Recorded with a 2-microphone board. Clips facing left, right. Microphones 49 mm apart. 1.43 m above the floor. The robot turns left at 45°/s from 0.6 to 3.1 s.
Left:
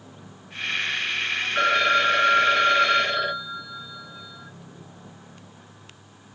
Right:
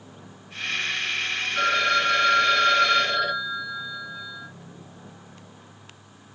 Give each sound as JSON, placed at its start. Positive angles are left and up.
{"t": 1.6, "sound": "a phone ringing", "azimuth_deg": 85, "distance_m": 0.9}